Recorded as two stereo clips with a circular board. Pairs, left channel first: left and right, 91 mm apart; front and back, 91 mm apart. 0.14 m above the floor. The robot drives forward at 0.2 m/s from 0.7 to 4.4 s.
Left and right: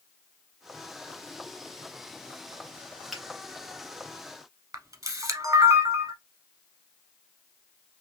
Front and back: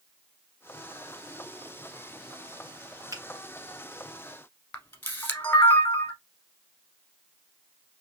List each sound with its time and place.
3.1 s a finger snap: 175° right, 1.8 m
4.7 s a camera shutter: 60° right, 0.9 m